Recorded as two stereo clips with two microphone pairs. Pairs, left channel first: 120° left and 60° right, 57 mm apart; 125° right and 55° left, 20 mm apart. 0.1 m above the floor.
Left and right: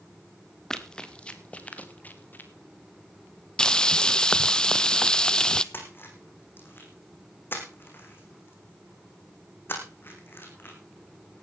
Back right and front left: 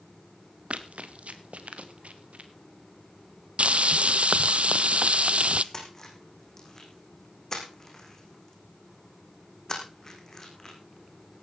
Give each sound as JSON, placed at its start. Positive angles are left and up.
{"t": 0.7, "sound": "running footsteps", "azimuth_deg": 40, "distance_m": 1.8}
{"t": 3.6, "sound": "frying", "azimuth_deg": 45, "distance_m": 0.5}
{"t": 5.7, "sound": "a splash", "azimuth_deg": 175, "distance_m": 3.5}